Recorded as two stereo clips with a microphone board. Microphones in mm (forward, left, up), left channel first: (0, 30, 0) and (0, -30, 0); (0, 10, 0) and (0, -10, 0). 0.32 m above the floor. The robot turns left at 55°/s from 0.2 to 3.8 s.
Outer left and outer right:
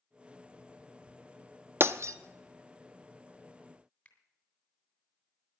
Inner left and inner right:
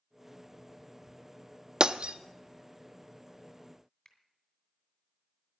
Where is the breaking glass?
40° right (ahead or behind), 0.5 m; by 2.1 s 55° right (ahead or behind), 0.5 m.